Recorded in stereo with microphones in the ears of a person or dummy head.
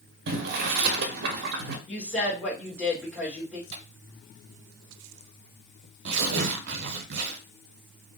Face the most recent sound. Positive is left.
turn(degrees=-65)  # may be behind; listen again after turning